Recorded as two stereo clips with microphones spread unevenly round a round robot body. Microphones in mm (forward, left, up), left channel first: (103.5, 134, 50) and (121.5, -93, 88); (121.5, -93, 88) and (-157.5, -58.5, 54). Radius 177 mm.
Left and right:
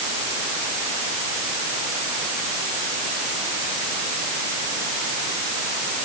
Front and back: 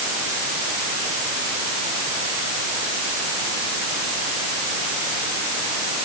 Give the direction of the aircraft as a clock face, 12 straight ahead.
No aircraft in this recording.